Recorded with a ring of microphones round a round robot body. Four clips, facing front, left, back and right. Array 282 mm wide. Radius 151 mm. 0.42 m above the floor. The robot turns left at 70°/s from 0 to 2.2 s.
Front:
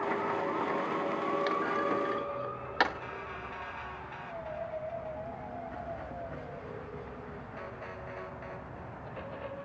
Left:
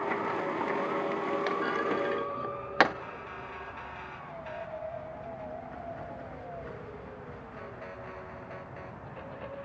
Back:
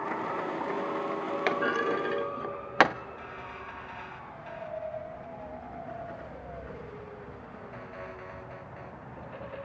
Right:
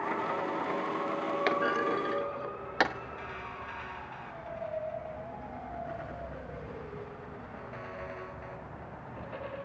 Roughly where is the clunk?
Behind right.